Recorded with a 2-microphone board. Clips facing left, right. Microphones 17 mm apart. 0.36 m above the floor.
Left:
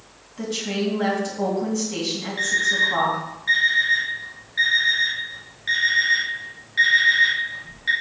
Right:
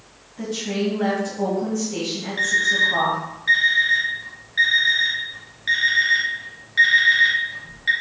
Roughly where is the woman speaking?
Left.